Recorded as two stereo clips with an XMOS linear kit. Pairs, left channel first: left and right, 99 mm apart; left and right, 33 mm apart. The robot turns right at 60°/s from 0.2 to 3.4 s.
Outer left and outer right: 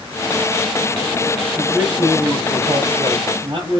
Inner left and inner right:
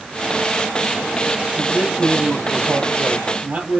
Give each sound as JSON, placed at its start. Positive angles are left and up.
{"t": 1.6, "sound": "a man speaking", "azimuth_deg": -170, "distance_m": 4.5}